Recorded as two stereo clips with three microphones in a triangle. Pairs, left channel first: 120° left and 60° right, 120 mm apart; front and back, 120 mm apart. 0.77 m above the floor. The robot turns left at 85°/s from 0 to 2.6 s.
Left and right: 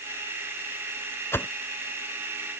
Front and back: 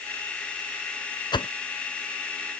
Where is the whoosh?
50° left; by 1.5 s 40° left.